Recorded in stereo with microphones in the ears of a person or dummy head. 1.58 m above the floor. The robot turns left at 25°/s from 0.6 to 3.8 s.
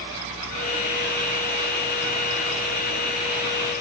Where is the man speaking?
No man speaking in this recording.